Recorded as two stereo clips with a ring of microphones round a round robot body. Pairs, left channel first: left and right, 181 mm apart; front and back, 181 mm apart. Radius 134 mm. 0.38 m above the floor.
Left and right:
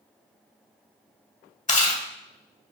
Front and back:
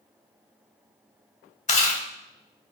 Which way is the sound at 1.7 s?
45° left.